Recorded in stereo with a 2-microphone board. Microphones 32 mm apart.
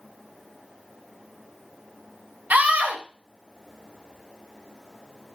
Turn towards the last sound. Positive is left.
turn(degrees=-60)  # may be behind; listen again after turning